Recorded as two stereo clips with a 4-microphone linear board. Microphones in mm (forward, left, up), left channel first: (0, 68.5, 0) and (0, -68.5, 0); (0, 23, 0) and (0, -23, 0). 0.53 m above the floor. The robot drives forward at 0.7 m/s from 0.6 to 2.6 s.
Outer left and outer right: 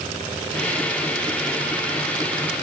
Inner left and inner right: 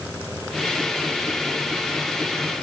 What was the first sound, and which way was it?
Only background noise.